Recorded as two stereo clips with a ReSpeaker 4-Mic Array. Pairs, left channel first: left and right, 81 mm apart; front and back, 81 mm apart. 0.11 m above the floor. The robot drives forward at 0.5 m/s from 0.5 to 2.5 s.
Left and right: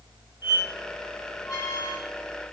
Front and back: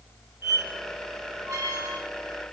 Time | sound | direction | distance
0.4 | a squeak | 125° left | 1.5 m